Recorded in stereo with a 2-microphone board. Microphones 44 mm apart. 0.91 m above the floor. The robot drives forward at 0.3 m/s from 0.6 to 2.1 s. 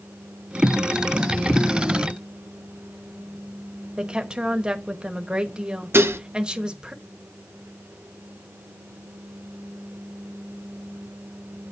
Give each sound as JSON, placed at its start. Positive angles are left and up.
{"t": 4.0, "sound": "a woman speaking", "side_deg": -20, "distance_m": 1.1}
{"t": 5.9, "sound": "dishes clattering", "side_deg": -65, "distance_m": 0.6}